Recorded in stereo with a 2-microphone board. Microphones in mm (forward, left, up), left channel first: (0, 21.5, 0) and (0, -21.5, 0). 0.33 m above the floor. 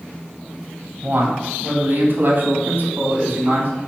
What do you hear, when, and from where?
1.0 s a man speaking: 55° right (ahead or behind), 1.6 m; by 3.7 s 40° right (ahead or behind), 2.5 m